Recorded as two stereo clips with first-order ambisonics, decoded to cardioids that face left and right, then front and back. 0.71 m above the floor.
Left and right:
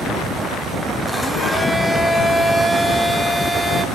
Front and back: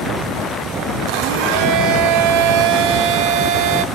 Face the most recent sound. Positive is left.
turn(degrees=180)